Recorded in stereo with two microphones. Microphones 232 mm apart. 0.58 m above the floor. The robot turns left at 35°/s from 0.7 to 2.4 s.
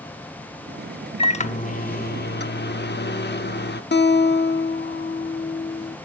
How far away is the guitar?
About 0.7 m.